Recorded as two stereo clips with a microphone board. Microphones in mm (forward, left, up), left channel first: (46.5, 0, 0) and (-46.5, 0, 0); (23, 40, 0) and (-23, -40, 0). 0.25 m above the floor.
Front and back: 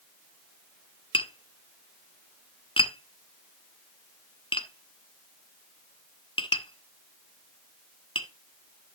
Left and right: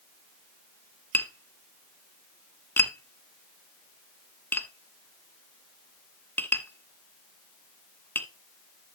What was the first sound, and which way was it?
Tapping, 10° right.